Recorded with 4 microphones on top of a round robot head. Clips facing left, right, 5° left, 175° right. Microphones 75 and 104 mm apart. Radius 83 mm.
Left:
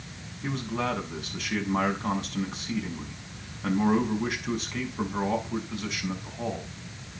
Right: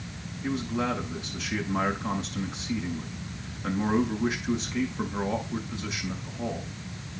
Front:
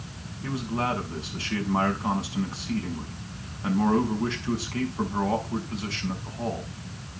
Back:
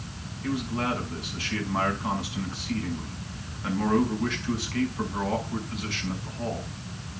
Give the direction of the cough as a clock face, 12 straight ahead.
No cough in this recording.